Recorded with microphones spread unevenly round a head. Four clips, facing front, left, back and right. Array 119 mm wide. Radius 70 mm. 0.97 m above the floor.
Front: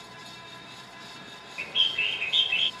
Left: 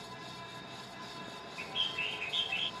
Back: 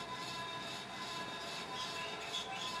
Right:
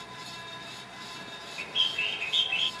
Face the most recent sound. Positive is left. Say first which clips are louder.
# right 5 dB, front 12 dB
turn(degrees=-20)